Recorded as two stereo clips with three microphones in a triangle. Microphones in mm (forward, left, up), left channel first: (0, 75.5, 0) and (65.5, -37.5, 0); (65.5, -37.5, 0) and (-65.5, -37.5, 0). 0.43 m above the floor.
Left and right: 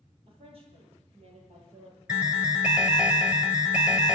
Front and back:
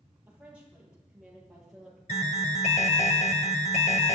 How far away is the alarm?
About 1.3 m.